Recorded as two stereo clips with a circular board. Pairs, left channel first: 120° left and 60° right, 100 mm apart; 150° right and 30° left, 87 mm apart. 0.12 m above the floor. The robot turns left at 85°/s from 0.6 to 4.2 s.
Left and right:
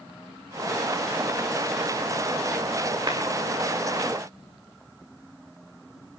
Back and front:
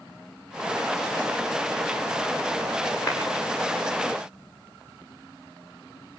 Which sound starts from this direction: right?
A clap, at 3.1 s.